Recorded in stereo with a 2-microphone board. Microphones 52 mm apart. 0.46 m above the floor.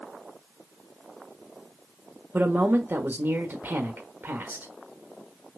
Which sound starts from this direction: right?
A man speaking, at 2.3 s.